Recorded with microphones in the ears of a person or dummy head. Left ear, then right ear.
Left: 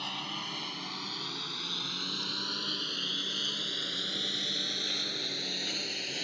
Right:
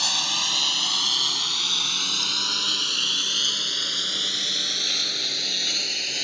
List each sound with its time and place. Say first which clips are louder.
0.0 s a lawn mower: right 14 dB; 65° right (ahead or behind); by 6.2 s 30° right (ahead or behind)